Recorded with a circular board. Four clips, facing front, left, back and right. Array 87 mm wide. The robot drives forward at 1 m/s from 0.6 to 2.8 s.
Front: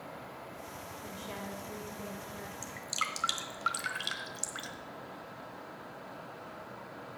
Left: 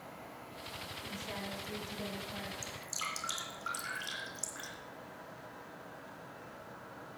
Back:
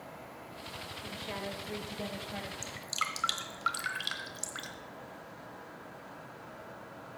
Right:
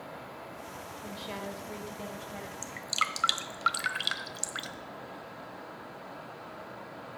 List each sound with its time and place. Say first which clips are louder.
1.0 s a woman speaking: right 4 dB, back 3 dB; 90° right, 1.2 m; by 2.5 s 165° right, 1.9 m
2.6 s dripping: right 9 dB, front 2 dB; 80° right, 1.0 m; by 4.7 s 95° right, 1.0 m